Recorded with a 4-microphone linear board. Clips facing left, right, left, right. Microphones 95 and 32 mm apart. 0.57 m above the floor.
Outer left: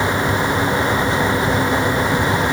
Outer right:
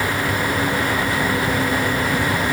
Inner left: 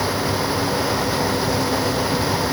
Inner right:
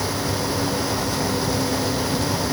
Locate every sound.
Only background noise.